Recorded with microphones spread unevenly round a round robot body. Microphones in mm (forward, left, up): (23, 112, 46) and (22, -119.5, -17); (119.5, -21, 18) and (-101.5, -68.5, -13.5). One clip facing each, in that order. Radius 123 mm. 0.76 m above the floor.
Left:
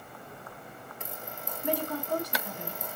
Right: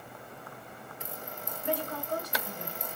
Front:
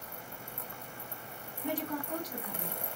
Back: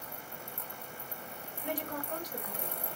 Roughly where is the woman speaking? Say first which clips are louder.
Left 3 dB, front 3 dB; ahead left.